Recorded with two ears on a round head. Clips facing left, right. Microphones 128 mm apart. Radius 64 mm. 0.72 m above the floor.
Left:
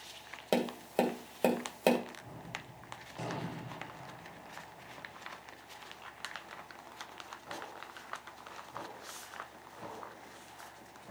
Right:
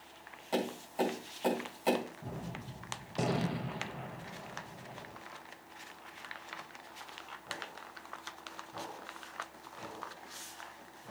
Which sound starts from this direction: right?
A gunshot, at 2.2 s.